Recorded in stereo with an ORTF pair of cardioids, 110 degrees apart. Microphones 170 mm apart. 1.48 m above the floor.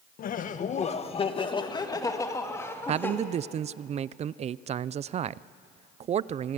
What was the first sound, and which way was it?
Laughter, 55° left.